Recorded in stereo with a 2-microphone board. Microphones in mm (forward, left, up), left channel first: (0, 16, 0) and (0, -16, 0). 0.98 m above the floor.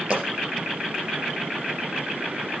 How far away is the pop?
About 5 m.